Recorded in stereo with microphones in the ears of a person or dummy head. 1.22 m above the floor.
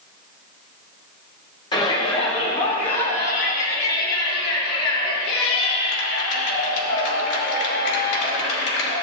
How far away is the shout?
About 3 m.